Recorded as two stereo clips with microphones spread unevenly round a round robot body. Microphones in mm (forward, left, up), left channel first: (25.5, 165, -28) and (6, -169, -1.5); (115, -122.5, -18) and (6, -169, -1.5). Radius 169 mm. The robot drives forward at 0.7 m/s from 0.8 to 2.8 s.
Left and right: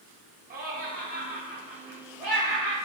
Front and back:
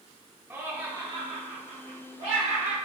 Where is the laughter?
95° right, 0.7 m; by 2.8 s 170° right, 1.6 m.